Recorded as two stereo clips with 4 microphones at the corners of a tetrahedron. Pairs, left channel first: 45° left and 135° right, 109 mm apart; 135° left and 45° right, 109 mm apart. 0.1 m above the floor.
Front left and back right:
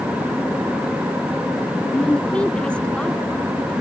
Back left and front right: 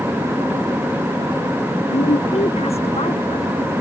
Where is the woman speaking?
125° left.